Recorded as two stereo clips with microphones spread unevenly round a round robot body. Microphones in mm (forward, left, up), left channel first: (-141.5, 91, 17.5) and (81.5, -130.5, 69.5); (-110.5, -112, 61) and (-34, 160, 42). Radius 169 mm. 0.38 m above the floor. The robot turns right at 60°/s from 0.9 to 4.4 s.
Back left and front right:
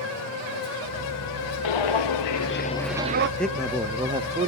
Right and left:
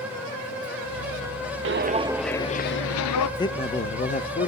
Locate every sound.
1.6 s footsteps: 120° left, 0.9 m; by 3.3 s 75° right, 0.5 m
3.4 s a man speaking: 170° right, 1.1 m; by 4.5 s 110° right, 1.1 m